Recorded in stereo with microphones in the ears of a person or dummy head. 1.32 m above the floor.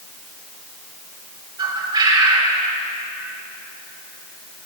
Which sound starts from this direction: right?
A bird, at 1.6 s.